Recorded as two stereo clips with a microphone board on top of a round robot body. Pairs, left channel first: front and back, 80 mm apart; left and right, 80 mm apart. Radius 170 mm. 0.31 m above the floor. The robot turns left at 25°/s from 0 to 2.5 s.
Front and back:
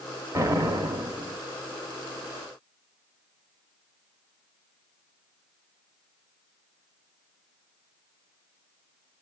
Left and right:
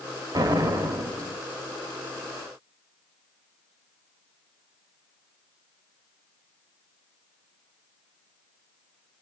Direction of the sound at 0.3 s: 130° right.